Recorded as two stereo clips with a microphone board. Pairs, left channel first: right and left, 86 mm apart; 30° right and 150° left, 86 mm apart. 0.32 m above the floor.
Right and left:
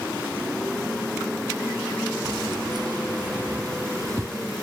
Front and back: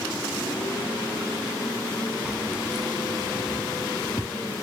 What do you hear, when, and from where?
2.2 s keys jangling: 75° left; by 4.4 s 40° left